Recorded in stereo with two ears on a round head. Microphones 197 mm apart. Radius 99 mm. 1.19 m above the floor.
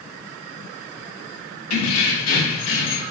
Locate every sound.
1.7 s keys jangling: 80° left, 1.4 m; by 3.0 s 65° left (ahead or behind), 0.9 m